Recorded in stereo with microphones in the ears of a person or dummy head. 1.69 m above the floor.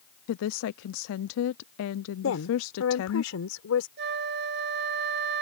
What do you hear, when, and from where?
0.3 s a woman speaking: 75° left (ahead or behind)
2.2 s a woman speaking: 75° left (ahead or behind)
4.0 s a flute: 60° right (ahead or behind)